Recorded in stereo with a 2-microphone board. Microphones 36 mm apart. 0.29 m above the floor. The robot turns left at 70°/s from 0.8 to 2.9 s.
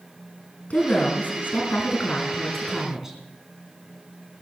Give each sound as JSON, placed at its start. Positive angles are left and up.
{"t": 0.7, "sound": "a woman speaking", "azimuth_deg": 140, "distance_m": 3.5}